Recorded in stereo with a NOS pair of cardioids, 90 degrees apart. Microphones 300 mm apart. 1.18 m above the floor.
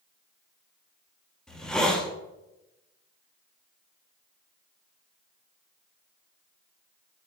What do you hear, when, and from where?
1.5 s a hiss: 5° left, 1.4 m